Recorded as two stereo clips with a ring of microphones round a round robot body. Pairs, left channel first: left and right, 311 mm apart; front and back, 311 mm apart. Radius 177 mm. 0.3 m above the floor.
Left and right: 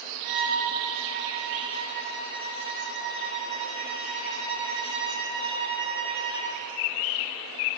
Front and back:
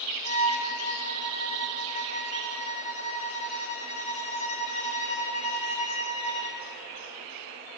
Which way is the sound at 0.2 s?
65° right.